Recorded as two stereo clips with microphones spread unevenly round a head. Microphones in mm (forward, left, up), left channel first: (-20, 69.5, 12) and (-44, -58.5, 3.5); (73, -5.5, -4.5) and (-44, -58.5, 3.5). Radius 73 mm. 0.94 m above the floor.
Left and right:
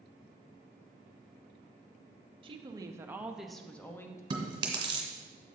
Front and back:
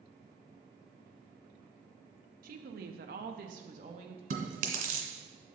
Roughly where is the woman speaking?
Behind right.